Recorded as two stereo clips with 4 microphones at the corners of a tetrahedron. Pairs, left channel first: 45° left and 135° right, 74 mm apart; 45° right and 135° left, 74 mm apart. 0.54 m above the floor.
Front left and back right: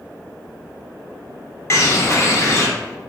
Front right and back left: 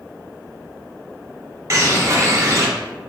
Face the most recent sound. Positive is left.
turn(degrees=90)